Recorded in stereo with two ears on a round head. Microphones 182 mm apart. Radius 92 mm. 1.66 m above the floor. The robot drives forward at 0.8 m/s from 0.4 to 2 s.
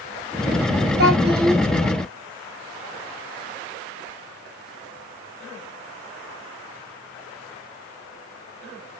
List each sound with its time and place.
1.0 s a child speaking: 45° right (ahead or behind), 1.3 m